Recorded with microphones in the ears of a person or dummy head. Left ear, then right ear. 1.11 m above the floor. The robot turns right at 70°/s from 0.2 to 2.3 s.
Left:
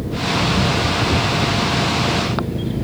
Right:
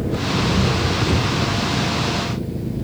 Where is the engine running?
110° right; by 2.8 s 35° left.